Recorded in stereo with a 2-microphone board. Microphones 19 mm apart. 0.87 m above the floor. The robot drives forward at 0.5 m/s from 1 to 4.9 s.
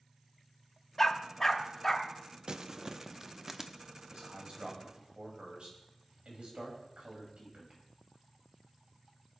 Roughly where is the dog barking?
Centre.